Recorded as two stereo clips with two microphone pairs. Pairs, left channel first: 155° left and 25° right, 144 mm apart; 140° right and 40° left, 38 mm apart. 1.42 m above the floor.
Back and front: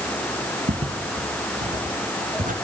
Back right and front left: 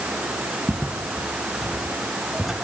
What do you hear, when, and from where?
0.7 s footsteps: 25° right, 4 m; by 2.5 s 45° right, 5.5 m